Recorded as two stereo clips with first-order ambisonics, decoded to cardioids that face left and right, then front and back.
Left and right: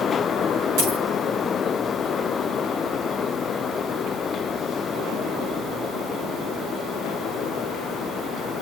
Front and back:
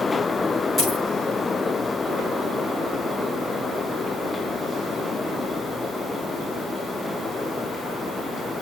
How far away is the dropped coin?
About 6 m.